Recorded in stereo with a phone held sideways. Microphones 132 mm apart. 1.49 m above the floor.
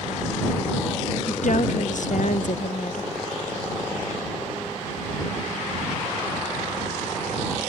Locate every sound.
1.3 s a woman speaking: 65° left (ahead or behind)